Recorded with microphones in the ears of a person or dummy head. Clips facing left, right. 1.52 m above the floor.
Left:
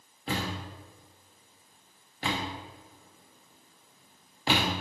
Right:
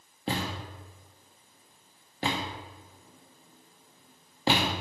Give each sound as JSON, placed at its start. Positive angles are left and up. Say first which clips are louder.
{"t": 0.3, "sound": "a thud", "louder": "right 1 dB", "side_deg": -30, "distance_m": 1.2}